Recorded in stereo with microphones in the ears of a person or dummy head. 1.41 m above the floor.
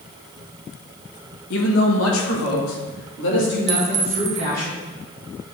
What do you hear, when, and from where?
1.5 s a man speaking: 65° left (ahead or behind), 2.0 m; by 4.7 s 50° left (ahead or behind), 4.5 m
3.7 s a clink: 35° right (ahead or behind), 1.0 m